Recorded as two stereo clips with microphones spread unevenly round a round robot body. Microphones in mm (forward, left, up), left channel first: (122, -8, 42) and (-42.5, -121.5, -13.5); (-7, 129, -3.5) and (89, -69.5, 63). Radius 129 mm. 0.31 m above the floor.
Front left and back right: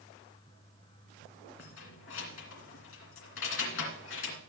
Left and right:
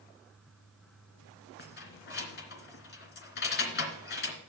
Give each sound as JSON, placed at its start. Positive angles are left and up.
{"t": 1.6, "sound": "keys jangling", "azimuth_deg": 80, "distance_m": 2.5}